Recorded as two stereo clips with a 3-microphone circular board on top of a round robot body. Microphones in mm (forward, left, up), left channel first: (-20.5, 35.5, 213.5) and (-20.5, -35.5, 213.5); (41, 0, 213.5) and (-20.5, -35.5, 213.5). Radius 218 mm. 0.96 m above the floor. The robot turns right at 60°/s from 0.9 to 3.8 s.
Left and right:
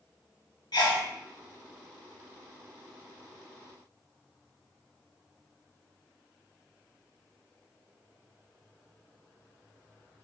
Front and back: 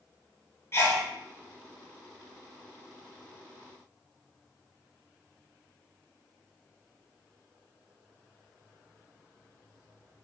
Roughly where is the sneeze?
Left.